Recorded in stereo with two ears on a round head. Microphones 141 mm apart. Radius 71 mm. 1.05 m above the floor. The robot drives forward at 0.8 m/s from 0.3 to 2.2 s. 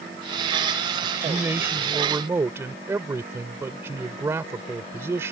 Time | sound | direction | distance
1.0 | a man speaking | 15° right (ahead or behind) | ?